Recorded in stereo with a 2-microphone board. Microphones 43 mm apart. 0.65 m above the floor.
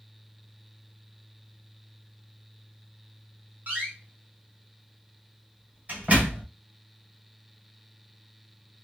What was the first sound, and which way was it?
A door slam, 40° right (ahead or behind).